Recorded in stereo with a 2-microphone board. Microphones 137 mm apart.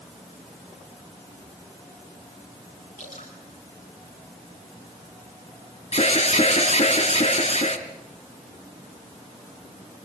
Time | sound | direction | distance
3.0 | dripping | 65° left (ahead or behind) | 8.5 m
5.9 | an alarm | 50° left (ahead or behind) | 2.5 m